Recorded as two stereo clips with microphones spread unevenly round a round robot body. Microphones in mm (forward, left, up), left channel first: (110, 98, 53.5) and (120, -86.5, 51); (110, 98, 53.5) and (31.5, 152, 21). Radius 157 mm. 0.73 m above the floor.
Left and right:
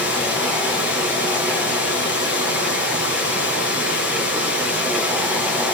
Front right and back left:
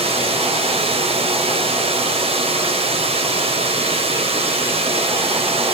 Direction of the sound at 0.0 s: 140° left.